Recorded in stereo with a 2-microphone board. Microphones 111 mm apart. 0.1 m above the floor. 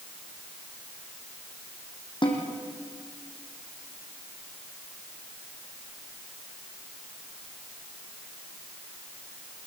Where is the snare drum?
45° left (ahead or behind), 4 m.